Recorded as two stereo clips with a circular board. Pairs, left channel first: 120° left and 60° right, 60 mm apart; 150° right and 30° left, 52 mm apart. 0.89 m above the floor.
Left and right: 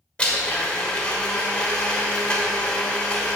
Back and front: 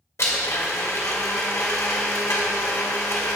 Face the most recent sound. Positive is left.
turn(degrees=-170)